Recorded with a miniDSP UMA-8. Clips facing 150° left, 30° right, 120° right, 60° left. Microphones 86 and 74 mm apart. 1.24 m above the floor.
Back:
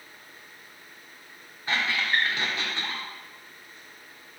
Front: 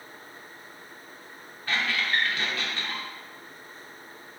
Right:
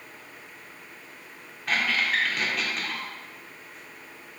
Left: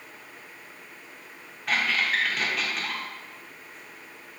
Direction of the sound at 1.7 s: 150° left.